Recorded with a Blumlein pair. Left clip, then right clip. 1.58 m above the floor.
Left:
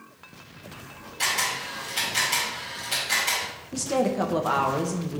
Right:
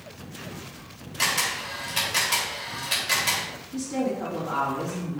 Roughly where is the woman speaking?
Ahead left.